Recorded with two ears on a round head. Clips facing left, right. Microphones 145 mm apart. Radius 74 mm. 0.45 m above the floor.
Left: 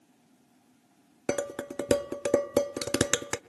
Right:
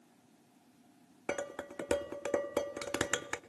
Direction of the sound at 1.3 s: 45° left (ahead or behind).